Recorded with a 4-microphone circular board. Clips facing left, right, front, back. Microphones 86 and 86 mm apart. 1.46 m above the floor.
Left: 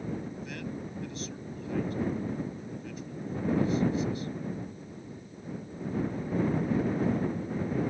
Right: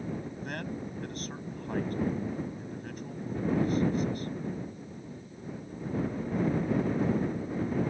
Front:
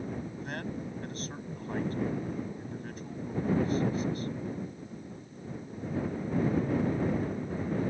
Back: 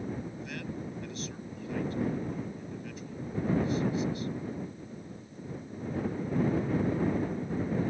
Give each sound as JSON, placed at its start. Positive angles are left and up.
{"t": 0.4, "sound": "a man speaking", "azimuth_deg": -50}